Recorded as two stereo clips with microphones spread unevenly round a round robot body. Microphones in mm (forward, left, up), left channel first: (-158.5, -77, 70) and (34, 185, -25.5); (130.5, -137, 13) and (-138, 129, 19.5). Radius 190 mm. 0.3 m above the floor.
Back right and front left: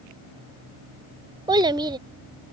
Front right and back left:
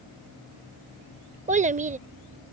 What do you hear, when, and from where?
1.5 s a child speaking: 80° left